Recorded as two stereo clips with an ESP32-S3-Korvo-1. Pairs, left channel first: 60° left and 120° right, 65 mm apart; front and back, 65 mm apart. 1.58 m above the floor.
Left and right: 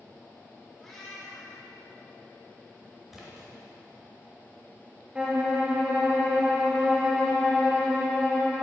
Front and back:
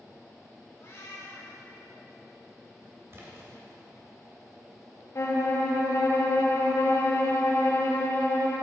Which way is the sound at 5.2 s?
45° right.